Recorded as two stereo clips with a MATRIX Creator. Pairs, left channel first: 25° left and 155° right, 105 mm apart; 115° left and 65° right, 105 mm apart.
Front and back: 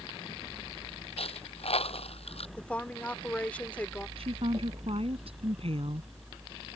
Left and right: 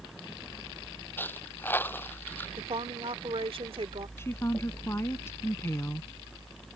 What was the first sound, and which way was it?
A dropped coin, 40° left.